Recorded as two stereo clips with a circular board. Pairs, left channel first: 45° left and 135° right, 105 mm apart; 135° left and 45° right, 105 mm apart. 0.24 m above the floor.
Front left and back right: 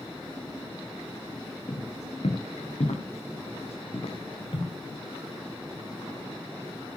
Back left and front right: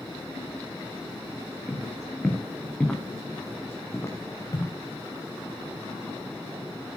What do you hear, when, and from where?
1.7 s footsteps: 45° left, 3 m; by 4.7 s 80° left, 2.5 m